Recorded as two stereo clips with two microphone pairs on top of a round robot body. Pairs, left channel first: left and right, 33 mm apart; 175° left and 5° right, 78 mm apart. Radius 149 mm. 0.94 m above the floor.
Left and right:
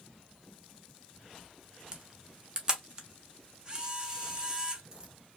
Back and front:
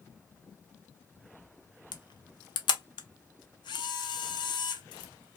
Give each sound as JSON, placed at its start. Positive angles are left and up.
{"t": 1.9, "sound": "a camera shutter", "azimuth_deg": -160, "distance_m": 0.5}